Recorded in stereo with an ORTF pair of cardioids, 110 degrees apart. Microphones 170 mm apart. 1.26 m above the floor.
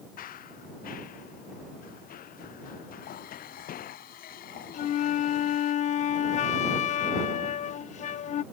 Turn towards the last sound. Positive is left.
turn(degrees=45)